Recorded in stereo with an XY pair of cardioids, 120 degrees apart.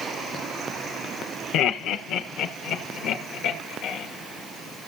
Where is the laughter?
65° left, 0.9 m; by 4.1 s 80° left, 3 m.